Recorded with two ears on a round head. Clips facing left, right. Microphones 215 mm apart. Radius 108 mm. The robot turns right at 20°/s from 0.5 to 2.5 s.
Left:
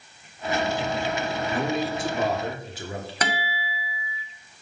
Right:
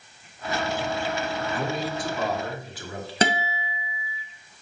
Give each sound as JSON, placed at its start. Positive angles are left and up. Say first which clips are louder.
{"t": 1.5, "sound": "a man speaking", "louder": "left 5 dB", "side_deg": 20, "distance_m": 1.1}
{"t": 3.2, "sound": "a guitar", "louder": "right 7 dB", "side_deg": -25, "distance_m": 0.5}